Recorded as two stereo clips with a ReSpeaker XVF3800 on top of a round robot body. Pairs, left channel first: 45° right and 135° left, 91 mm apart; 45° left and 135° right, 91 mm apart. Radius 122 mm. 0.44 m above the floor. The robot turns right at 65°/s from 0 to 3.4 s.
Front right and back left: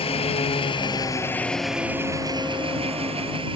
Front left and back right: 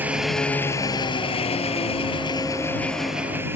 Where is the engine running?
60° right; by 3.6 s 160° left.